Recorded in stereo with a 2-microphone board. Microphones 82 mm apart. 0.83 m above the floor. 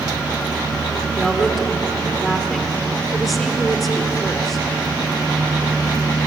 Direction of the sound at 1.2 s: Centre (ahead or behind).